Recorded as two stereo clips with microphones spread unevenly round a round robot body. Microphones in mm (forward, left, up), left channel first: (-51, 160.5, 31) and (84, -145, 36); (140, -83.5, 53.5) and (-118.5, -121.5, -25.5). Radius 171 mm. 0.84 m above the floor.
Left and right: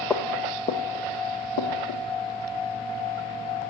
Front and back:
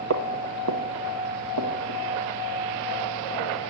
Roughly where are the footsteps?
Behind.